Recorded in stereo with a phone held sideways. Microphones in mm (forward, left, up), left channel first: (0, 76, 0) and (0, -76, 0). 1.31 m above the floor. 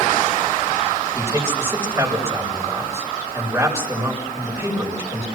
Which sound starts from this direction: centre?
A man speaking, at 1.1 s.